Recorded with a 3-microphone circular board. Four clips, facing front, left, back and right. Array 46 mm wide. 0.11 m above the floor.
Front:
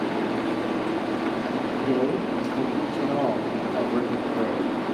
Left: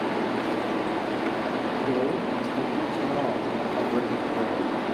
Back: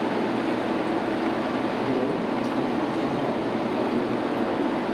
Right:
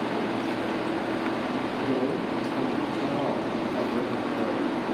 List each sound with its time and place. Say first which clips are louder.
1.8 s a man speaking: left 1 dB, front 1 dB; 50° left, 4 m